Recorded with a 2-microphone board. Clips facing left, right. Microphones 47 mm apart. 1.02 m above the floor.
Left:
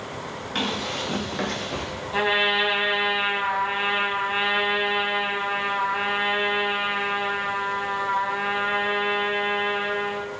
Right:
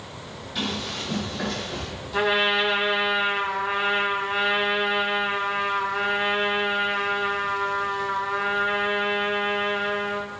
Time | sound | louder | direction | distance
0.6 | running footsteps | left 2 dB | 60° left (ahead or behind) | 9.5 m
2.1 | a trumpet | even | 25° left (ahead or behind) | 3 m